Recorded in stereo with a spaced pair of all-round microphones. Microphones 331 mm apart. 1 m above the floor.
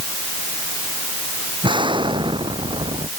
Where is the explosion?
15° right (ahead or behind).